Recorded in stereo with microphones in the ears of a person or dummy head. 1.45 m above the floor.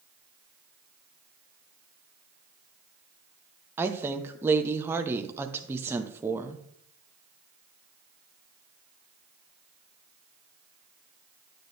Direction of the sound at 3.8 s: 10° right (ahead or behind).